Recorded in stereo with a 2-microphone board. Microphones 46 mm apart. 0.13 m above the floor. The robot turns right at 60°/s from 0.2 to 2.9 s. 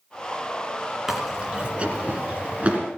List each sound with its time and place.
1.1 s chewing: 5° right (ahead or behind), 1.8 m; by 2.8 s 30° right (ahead or behind), 1.8 m